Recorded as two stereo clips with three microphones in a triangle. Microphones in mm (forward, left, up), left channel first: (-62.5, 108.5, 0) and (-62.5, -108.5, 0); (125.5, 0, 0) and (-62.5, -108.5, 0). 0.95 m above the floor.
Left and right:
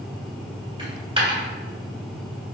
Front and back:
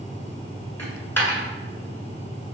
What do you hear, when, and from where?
0.8 s a dropped coin: 45° right, 1.1 m